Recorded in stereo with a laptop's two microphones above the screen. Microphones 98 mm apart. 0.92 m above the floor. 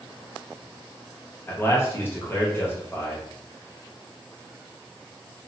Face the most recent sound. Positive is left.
turn(degrees=25)  # may be behind; listen again after turning